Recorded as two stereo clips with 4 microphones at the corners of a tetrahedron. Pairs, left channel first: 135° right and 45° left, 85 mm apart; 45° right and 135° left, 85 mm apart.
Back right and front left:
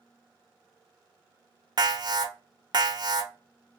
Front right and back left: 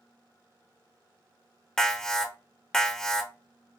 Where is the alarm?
40° left, 0.6 m.